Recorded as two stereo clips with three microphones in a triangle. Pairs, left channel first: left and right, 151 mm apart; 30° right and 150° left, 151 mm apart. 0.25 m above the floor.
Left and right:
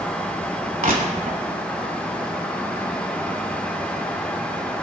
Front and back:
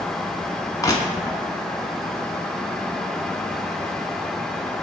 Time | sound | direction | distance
0.8 | crushing | 95° right | 1.0 m